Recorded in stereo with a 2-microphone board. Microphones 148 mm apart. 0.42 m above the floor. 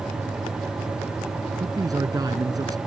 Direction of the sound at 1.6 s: 25° right (ahead or behind).